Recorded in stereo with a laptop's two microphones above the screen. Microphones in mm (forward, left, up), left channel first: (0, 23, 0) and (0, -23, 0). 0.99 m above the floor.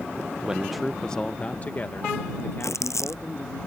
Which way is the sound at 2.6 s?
90° left.